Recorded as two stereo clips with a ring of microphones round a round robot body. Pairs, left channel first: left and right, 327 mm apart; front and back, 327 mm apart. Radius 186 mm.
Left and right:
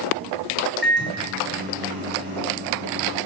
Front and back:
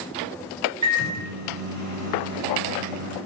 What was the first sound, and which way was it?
A microwave, 145° right.